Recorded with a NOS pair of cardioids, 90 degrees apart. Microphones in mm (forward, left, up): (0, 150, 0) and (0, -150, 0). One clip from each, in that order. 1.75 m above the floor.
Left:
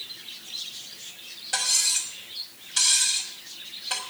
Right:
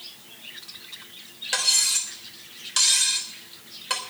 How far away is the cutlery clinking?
About 4 m.